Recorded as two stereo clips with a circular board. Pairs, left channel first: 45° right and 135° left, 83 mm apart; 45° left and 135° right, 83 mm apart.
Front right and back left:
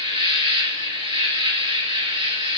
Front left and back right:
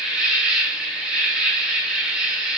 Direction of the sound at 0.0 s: 145° left.